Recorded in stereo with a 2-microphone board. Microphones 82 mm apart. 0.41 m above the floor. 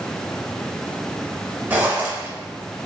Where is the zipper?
20° right (ahead or behind), 1.0 m.